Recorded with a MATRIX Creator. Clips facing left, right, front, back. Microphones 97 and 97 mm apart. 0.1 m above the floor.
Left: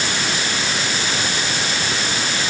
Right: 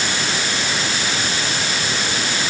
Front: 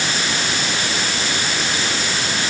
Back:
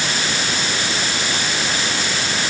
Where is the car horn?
I don't hear a car horn.